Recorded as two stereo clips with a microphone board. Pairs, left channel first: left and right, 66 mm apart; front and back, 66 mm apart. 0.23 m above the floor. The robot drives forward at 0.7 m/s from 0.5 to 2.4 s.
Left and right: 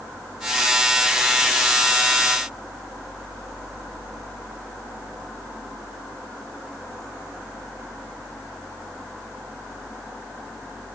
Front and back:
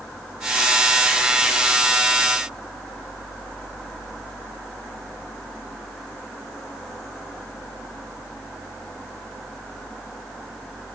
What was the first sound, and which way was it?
Only background noise.